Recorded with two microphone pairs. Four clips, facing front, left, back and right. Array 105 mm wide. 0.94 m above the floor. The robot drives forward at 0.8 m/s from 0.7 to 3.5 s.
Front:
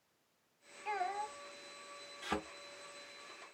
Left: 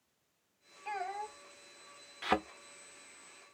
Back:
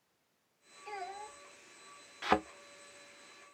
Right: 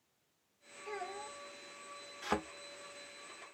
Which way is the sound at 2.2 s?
170° left.